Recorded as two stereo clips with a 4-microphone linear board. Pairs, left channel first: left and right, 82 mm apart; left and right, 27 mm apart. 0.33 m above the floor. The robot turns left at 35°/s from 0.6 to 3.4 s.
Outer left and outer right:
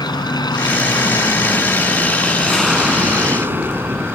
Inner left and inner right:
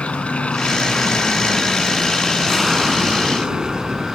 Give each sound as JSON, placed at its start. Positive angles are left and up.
{"t": 0.0, "sound": "an aircraft", "azimuth_deg": 70}